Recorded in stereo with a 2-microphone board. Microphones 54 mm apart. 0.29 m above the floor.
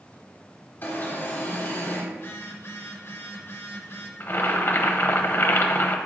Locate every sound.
0.8 s an alarm: 40° left (ahead or behind), 1.5 m
2.1 s a phone buzzing: 50° left (ahead or behind), 1.3 m
4.2 s boiling: 45° left (ahead or behind), 0.7 m